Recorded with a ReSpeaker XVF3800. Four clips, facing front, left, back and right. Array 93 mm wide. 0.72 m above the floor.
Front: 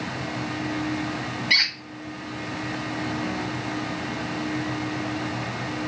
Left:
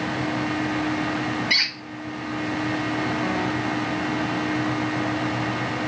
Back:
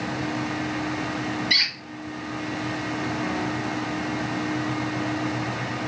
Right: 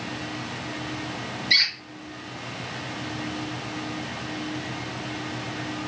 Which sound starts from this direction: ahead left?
A squeak, at 1.5 s.